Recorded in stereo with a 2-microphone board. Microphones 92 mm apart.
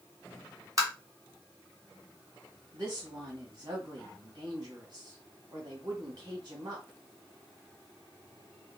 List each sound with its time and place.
0.8 s tapping: 35° right (ahead or behind), 2.5 m
2.7 s a woman speaking: 50° right (ahead or behind), 3 m